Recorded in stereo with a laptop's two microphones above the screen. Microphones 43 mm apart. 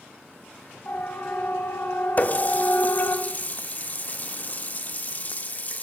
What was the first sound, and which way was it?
A siren, 45° left (ahead or behind).